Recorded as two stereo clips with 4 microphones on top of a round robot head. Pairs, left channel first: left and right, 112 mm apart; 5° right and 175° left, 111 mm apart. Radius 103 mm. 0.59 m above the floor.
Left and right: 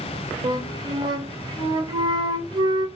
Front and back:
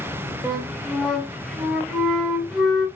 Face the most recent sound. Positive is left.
turn(degrees=-95)